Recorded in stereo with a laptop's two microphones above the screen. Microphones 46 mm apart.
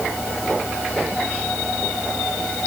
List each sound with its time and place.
Only background noise.